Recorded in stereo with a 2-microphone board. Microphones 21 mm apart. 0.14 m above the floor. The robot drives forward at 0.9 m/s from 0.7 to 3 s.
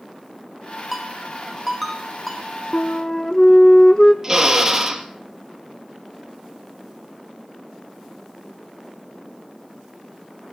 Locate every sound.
0.9 s a ringtone: centre (ahead or behind), 2.5 m
2.7 s a flute: 50° left (ahead or behind), 0.8 m; by 4.1 s 40° left (ahead or behind), 1.0 m
4.2 s a drill: 20° right (ahead or behind), 2 m